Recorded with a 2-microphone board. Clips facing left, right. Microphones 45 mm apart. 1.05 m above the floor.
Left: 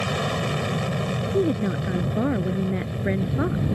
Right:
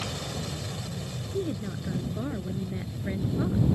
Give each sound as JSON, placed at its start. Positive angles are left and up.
{"t": 0.0, "sound": "an aircraft", "side_deg": 50}
{"t": 1.3, "sound": "a woman speaking", "side_deg": 40}